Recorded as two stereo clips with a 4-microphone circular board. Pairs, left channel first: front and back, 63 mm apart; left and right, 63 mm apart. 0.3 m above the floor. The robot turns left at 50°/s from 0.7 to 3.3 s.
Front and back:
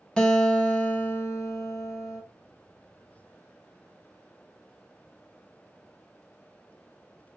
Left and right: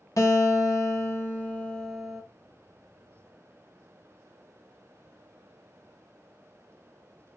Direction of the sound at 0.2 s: 75° left.